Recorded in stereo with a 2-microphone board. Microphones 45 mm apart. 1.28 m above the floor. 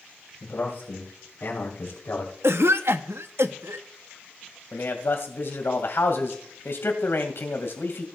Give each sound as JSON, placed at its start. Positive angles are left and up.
{"t": 0.4, "sound": "a man speaking", "side_deg": 55, "distance_m": 4.0}
{"t": 2.4, "sound": "a cough", "side_deg": -70, "distance_m": 0.6}
{"t": 4.7, "sound": "a man speaking", "side_deg": 65, "distance_m": 1.8}